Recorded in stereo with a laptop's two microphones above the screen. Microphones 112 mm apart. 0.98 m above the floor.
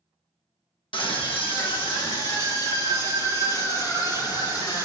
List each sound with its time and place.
0.9 s a scream: 45° left (ahead or behind), 1.2 m; by 4.9 s 40° left (ahead or behind), 4 m